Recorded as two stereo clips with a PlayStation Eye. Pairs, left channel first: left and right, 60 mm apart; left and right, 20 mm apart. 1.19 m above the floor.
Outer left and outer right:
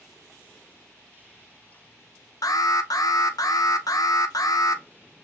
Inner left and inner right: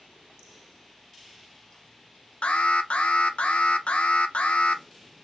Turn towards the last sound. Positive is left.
turn(degrees=80)